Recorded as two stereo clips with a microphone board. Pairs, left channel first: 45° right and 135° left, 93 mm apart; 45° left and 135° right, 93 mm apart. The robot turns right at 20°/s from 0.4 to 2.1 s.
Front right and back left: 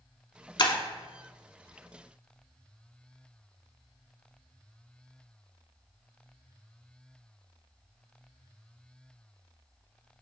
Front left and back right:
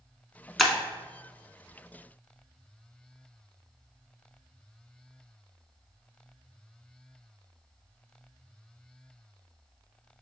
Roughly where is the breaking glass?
Ahead right.